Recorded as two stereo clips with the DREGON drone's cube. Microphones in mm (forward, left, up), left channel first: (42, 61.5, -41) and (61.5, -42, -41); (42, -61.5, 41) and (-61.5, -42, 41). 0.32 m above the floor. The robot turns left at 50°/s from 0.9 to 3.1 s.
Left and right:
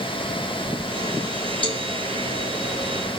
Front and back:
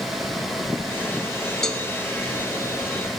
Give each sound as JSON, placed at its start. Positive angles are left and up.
{"t": 1.6, "sound": "a cowbell", "azimuth_deg": 75, "distance_m": 0.6}